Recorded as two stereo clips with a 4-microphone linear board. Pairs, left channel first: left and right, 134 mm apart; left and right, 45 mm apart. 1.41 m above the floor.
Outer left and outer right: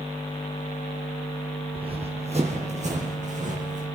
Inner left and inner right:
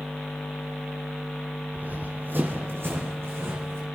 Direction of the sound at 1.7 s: 45° right (ahead or behind).